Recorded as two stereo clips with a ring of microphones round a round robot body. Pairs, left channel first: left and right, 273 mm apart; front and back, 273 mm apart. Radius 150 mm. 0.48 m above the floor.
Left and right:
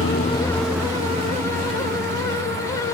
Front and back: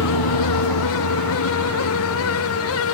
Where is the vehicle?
40° left; by 2.9 s 35° right.